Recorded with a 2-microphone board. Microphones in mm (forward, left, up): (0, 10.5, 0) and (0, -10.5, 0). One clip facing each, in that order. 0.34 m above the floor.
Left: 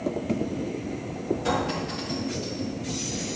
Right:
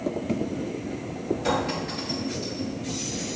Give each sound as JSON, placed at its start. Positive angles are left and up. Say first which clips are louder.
{"t": 1.4, "sound": "a clink", "louder": "right 1 dB", "side_deg": -30, "distance_m": 3.5}